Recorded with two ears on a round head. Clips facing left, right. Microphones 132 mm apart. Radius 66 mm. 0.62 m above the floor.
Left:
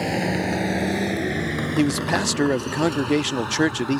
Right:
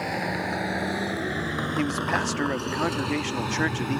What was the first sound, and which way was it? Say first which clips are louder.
A vehicle: left 5 dB; 30° left (ahead or behind).